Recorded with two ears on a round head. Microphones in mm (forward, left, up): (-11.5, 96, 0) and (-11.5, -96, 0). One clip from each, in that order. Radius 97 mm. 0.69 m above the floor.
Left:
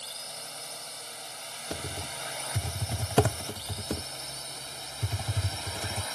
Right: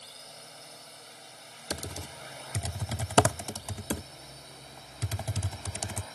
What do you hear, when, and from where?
0.0 s a drone: 20° left (ahead or behind); by 6.2 s 40° left (ahead or behind)
1.7 s typing on a keyboard: 40° right (ahead or behind)